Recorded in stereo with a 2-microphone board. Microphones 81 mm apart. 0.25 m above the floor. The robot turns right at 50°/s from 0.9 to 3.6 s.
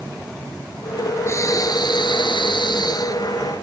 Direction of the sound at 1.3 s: 35° left.